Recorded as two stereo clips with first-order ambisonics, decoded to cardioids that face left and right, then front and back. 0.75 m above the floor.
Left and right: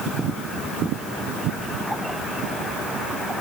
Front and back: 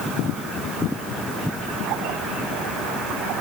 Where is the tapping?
No tapping in this recording.